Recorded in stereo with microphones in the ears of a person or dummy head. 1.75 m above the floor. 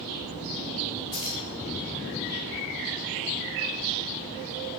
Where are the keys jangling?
20° left (ahead or behind), 0.7 m.